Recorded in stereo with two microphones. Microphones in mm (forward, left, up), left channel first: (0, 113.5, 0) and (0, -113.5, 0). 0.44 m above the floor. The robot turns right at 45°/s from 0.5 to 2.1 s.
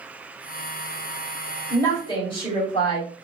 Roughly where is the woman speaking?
Centre.